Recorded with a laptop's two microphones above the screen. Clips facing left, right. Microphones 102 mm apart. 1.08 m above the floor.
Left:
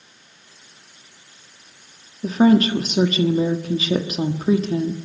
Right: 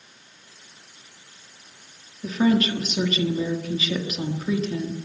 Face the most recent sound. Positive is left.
turn(degrees=40)  # may be behind; listen again after turning